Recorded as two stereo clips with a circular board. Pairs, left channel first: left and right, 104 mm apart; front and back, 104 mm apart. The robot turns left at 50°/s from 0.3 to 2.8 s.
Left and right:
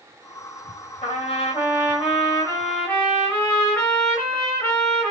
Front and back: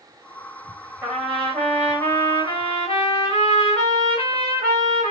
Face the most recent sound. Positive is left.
turn(degrees=15)